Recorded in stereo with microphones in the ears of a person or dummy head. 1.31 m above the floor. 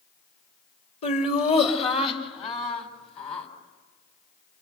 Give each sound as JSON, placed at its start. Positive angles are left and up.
{"t": 1.0, "sound": "laughter", "side_deg": 40, "distance_m": 2.5}